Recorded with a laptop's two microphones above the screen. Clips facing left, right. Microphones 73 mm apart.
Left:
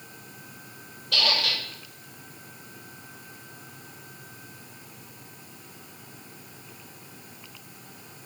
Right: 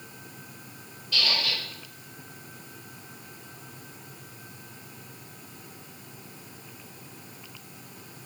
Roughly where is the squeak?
Left.